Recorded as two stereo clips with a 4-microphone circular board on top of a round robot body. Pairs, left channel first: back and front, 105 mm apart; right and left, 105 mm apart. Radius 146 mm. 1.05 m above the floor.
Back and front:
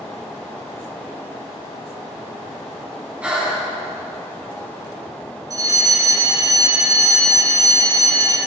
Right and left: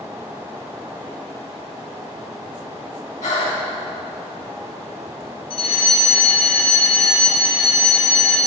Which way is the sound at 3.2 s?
80° right.